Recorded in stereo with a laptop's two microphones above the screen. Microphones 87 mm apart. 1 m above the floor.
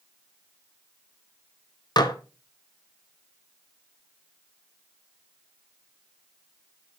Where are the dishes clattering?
50° left (ahead or behind), 0.7 m.